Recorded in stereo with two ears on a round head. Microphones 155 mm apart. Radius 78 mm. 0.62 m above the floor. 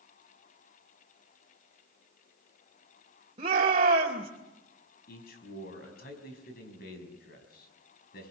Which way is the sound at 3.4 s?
35° right (ahead or behind).